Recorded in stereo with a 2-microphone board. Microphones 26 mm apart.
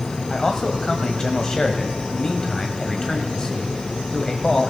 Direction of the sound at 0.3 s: 20° left (ahead or behind).